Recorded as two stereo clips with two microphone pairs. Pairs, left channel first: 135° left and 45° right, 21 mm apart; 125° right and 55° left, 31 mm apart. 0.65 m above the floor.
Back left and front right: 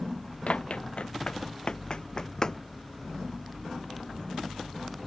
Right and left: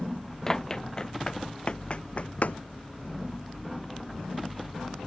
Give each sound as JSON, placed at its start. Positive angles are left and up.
{"t": 0.5, "sound": "running footsteps", "azimuth_deg": 160}